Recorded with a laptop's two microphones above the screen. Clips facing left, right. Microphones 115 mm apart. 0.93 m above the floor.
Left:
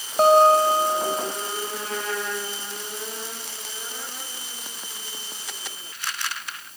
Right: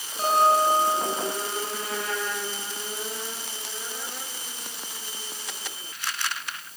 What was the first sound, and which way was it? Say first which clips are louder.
A guitar: left 6 dB; 60° left (ahead or behind).